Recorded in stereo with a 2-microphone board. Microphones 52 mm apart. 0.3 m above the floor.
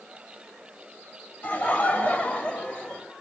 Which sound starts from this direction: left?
Laughter, at 1.4 s.